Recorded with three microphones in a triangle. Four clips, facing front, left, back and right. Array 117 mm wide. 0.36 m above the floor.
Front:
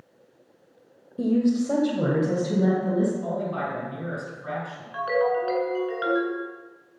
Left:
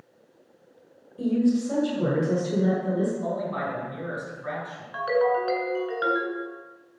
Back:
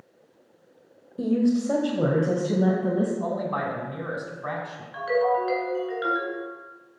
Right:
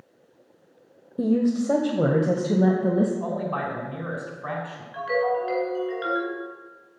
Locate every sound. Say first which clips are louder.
1.2 s a woman speaking: right 1 dB, even; 85° right, 1.1 m; by 3.1 s 105° right, 2 m
3.2 s a man speaking: right 1 dB, back 1 dB; 140° right, 3 m
4.9 s a ringtone: left 1 dB, even; 65° left, 3.5 m